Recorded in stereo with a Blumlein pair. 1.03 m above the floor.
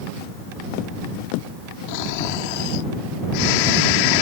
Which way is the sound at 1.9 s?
45° left.